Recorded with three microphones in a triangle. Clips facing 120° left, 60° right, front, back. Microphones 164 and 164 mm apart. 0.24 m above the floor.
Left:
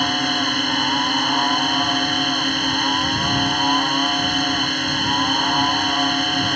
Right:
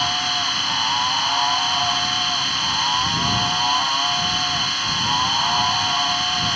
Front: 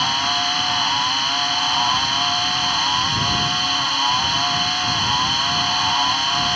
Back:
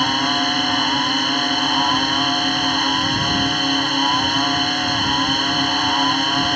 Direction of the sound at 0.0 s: 150° left.